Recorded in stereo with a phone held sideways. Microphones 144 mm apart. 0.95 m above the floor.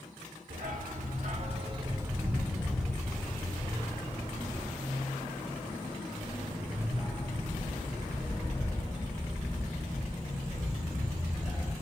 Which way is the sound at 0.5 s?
70° right (ahead or behind).